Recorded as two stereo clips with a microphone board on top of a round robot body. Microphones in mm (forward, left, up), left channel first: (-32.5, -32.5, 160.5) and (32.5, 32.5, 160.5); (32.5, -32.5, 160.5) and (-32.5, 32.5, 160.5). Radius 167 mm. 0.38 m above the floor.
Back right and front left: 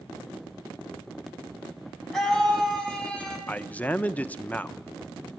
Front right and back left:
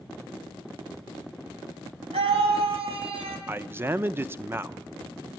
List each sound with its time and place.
2.1 s a scream: 140° left, 5 m; by 3.4 s 145° left, 5.5 m
3.5 s a man speaking: 170° left, 0.9 m